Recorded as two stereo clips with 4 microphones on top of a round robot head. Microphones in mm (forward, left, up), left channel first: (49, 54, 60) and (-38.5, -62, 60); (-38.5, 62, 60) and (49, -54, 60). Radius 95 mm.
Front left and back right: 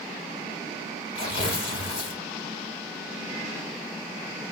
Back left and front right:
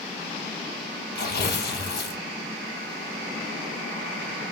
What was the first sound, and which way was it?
Tearing paper, 110° left.